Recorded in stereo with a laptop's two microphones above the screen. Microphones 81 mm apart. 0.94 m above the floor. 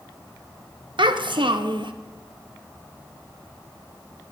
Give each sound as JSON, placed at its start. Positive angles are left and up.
{"t": 1.0, "sound": "a child speaking", "side_deg": -80, "distance_m": 0.7}